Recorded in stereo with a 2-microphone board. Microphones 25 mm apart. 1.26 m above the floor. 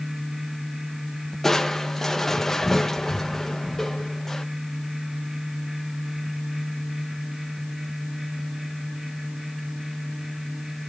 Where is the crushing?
15° left (ahead or behind), 1.8 m.